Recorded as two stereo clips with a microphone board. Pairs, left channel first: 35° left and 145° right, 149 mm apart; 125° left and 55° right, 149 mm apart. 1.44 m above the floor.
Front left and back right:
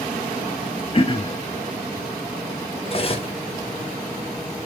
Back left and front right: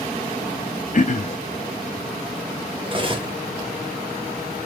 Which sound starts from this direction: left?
Throat clearing, at 0.9 s.